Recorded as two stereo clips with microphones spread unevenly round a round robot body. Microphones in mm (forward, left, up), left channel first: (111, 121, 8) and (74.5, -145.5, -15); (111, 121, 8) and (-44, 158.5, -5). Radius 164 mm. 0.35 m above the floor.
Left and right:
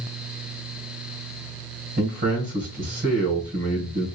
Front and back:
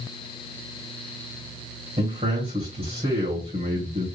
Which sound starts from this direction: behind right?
A man speaking, at 2.0 s.